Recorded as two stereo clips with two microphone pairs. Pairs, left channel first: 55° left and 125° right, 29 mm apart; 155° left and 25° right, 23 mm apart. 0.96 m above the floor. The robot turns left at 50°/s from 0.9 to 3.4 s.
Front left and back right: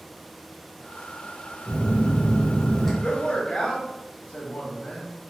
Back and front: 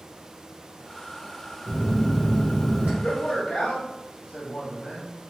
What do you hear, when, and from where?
1.7 s a phone buzzing: 30° left, 0.9 m; by 2.9 s 35° right, 0.9 m
3.0 s a man speaking: 130° left, 0.8 m; by 5.1 s 110° left, 0.8 m